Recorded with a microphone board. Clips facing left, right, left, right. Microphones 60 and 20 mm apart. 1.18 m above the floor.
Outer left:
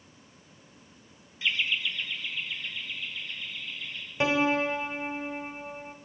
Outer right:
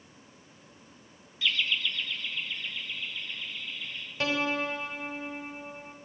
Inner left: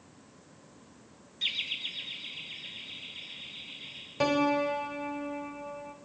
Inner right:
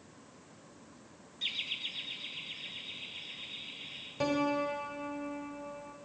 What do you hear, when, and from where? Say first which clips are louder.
1.4 s laughter: even, inner left 4 dB; 25° left (ahead or behind), 0.7 m; by 4.0 s 5° left (ahead or behind), 4 m
4.2 s a piano: outer left 4 dB, inner left 5 dB; 20° left (ahead or behind), 2.5 m